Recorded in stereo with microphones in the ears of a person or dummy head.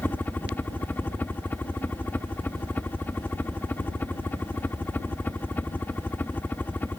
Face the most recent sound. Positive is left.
turn(degrees=10)  # may be behind; listen again after turning